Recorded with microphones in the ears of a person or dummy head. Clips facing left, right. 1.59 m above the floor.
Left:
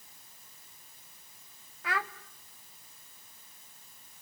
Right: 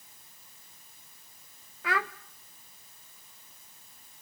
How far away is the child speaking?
About 0.6 m.